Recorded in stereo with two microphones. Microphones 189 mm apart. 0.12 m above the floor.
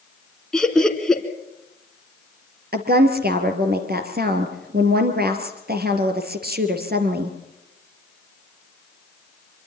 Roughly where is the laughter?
Centre.